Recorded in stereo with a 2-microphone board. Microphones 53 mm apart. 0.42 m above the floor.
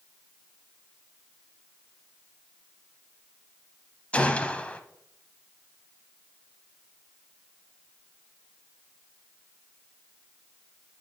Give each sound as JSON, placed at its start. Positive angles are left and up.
{"t": 4.1, "sound": "a gunshot", "side_deg": 25, "distance_m": 0.7}